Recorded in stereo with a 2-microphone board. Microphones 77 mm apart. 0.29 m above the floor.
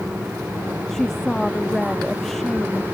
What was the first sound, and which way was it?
A woman speaking, 5° left (ahead or behind).